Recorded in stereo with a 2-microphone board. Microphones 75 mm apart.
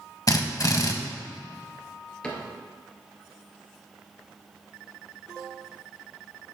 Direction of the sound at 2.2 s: 15° left (ahead or behind).